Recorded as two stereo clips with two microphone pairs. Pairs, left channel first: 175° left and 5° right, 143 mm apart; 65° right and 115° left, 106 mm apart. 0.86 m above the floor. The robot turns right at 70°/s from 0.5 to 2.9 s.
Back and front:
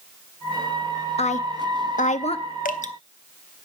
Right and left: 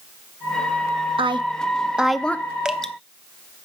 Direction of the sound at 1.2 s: 135° left.